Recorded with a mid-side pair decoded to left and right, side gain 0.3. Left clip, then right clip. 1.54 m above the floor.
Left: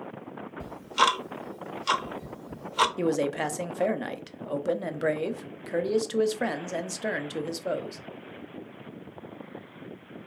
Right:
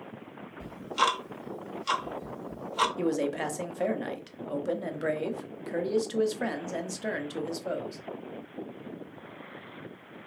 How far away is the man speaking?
About 0.6 m.